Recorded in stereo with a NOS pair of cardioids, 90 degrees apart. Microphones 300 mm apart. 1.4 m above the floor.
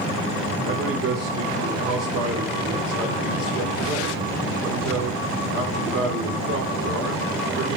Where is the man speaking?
50° right, 4 m.